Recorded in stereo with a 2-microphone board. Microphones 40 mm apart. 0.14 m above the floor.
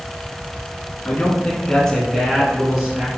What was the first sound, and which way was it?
A man speaking, 35° left (ahead or behind).